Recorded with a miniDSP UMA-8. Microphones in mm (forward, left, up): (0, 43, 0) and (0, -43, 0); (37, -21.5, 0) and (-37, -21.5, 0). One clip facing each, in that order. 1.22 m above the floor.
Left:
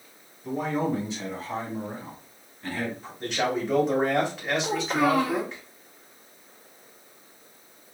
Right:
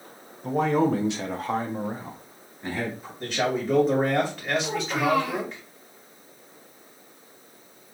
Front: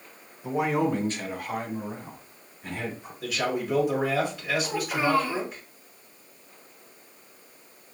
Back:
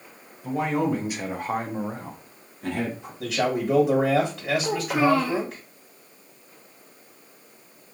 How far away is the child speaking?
About 0.8 m.